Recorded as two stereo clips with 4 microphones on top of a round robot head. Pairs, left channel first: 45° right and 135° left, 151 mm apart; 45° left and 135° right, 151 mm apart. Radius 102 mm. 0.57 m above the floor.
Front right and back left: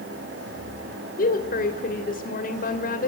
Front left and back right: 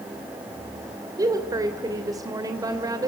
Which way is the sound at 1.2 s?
70° right.